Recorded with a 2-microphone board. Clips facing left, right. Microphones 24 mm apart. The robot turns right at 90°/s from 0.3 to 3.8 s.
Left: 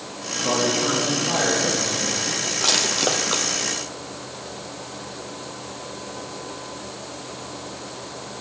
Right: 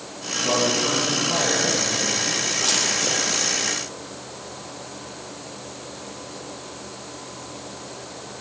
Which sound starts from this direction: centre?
Crushing, at 2.6 s.